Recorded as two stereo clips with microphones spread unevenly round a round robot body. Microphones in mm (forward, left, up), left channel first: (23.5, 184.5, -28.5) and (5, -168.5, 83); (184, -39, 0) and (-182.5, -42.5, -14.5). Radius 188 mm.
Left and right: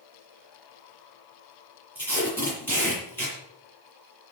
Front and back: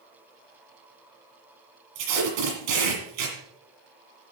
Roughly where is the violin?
I don't hear a violin.